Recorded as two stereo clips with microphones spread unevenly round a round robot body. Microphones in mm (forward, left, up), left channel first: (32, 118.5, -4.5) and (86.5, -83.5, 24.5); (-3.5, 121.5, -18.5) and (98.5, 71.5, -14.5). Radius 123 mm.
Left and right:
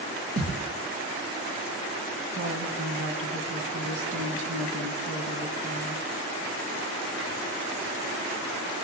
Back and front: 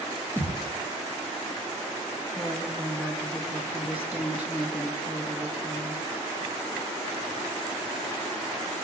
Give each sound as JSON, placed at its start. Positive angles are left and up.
{"t": 0.4, "sound": "a thud", "azimuth_deg": -105, "distance_m": 3.5}
{"t": 2.3, "sound": "a woman speaking", "azimuth_deg": -120, "distance_m": 3.5}